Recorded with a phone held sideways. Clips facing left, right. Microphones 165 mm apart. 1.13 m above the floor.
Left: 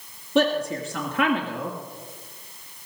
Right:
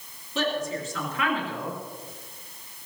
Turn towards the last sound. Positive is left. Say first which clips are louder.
# left 6 dB
turn(degrees=70)  # may be behind; listen again after turning